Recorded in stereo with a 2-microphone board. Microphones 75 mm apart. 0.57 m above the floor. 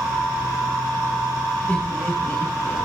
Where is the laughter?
30° left (ahead or behind), 7.5 m.